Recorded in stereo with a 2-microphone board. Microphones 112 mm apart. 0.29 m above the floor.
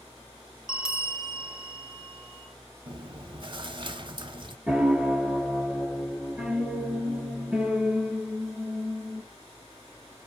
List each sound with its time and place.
0.7 s a bell: 5° right (ahead or behind), 2 m
2.9 s chewing: 45° right (ahead or behind), 0.6 m
4.7 s a piano: 10° right (ahead or behind), 2.5 m